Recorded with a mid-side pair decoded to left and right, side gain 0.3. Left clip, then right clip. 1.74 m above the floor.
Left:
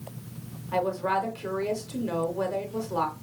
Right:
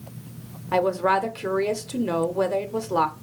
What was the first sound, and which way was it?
A woman speaking, 70° right.